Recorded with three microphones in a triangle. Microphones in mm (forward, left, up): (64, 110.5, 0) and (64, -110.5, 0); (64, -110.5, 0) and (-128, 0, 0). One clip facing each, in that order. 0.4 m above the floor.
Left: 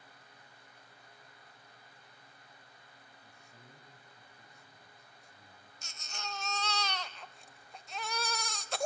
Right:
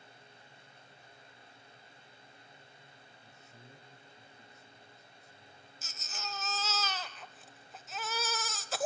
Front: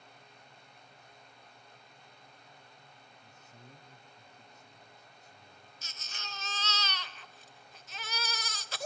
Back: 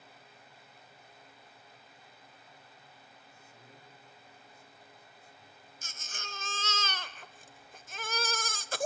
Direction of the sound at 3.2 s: 15° left.